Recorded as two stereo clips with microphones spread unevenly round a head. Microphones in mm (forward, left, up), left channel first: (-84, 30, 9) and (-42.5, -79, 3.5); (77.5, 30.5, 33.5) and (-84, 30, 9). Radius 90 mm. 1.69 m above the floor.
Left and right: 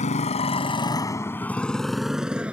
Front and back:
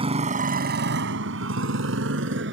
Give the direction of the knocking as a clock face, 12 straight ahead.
I don't hear knocking.